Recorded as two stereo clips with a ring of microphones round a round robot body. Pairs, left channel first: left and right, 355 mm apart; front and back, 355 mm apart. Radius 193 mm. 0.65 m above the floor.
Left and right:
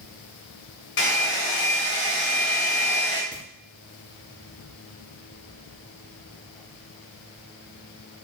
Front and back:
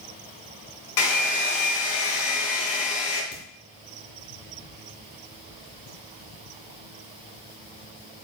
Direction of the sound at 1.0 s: 25° left.